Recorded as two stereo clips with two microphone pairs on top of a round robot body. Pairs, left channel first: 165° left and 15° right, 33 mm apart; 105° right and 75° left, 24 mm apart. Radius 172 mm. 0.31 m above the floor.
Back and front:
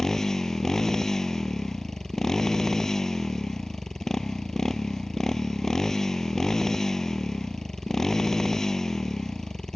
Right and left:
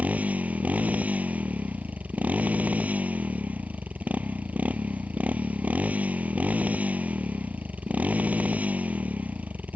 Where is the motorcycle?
85° left.